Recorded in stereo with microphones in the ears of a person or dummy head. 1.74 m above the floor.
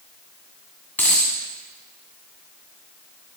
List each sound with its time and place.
1.0 s a dropped coin: 10° left (ahead or behind), 1.8 m